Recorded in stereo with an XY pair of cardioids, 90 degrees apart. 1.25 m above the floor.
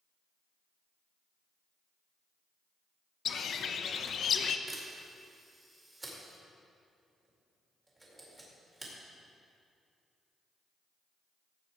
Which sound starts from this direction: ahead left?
A bird, at 3.2 s.